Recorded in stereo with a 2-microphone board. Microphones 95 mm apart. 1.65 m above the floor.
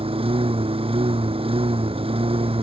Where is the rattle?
I don't hear a rattle.